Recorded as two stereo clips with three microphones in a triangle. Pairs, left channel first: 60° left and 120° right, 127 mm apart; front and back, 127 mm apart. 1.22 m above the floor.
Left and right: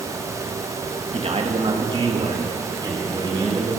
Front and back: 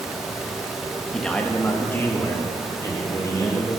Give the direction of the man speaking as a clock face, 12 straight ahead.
3 o'clock.